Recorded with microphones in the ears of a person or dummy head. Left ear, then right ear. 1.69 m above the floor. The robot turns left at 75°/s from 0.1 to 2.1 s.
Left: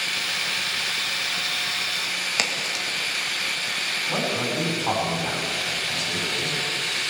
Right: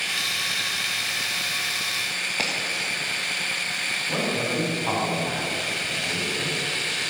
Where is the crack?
70° left (ahead or behind), 1.7 m.